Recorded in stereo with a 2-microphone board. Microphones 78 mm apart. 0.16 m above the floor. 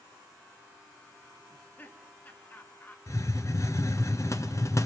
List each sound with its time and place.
1.5 s laughter: 25° left (ahead or behind), 2 m
3.1 s a hiss: 40° left (ahead or behind), 1.1 m